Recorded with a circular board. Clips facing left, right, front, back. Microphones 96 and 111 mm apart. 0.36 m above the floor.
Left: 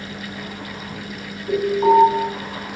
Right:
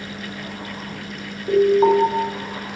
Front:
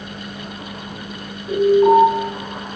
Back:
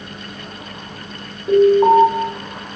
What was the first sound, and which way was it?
An alarm, 150° right.